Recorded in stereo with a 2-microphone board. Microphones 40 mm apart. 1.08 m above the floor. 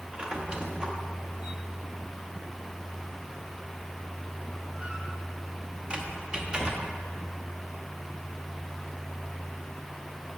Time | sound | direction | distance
0.1 | a squeak | 25° right (ahead or behind) | 0.9 m